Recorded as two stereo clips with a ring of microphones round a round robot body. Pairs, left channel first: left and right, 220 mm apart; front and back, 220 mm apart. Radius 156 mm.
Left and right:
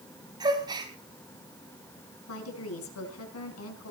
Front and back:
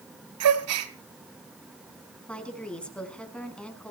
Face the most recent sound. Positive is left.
turn(degrees=85)